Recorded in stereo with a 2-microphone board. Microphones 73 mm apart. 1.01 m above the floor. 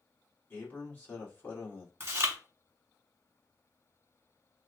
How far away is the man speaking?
About 1.5 m.